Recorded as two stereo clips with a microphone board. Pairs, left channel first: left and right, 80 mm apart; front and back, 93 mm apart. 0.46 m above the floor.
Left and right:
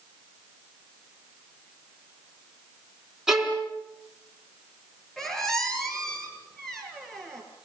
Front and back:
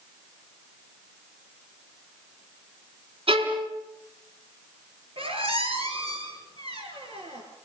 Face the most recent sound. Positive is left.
turn(degrees=175)